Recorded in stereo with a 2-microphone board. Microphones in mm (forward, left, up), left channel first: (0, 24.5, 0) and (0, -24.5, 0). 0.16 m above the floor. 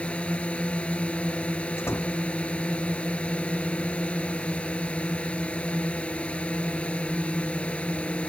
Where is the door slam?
55° left (ahead or behind).